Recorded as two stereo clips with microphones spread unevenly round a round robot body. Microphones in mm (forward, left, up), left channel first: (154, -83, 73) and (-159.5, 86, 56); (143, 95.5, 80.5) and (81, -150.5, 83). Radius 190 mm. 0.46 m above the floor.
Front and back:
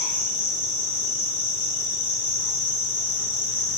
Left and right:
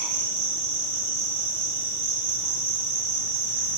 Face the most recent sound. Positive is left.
turn(degrees=-95)